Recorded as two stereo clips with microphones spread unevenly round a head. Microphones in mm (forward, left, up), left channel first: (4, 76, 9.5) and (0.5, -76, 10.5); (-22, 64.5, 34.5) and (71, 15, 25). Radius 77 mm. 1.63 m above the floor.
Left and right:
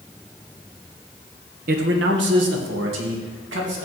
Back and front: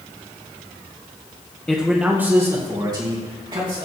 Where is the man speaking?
125° right, 1.2 m; by 3.9 s 85° right, 3 m.